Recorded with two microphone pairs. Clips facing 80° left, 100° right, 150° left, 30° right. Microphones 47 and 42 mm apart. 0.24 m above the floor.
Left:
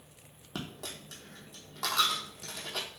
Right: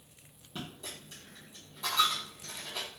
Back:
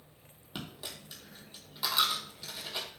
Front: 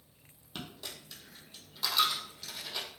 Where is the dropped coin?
70° left, 0.8 m.